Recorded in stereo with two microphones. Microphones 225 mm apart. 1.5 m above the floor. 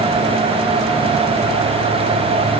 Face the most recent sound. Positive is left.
No sound to turn to.